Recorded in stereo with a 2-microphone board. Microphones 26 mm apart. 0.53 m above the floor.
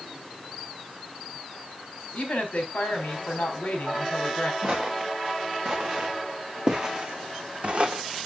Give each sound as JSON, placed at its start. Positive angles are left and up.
{"t": 2.1, "sound": "a woman speaking", "side_deg": 55, "distance_m": 3.5}
{"t": 4.6, "sound": "footsteps", "side_deg": -15, "distance_m": 3.0}